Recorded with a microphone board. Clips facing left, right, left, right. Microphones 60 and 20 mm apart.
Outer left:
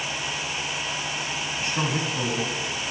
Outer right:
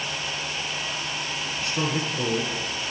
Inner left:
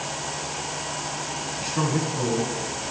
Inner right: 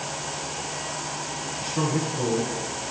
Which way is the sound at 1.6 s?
35° left (ahead or behind).